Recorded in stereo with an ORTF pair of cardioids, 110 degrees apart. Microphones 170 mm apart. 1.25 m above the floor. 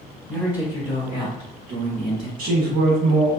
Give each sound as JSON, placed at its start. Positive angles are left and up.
{"t": 0.3, "sound": "a man speaking", "azimuth_deg": 5, "distance_m": 1.5}
{"t": 2.4, "sound": "a woman speaking", "azimuth_deg": -60, "distance_m": 1.0}